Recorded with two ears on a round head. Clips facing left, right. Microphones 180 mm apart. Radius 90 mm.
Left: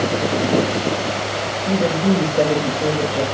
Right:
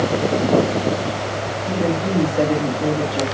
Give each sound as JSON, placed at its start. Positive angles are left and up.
{"t": 1.7, "sound": "a woman speaking", "side_deg": 20, "distance_m": 2.5}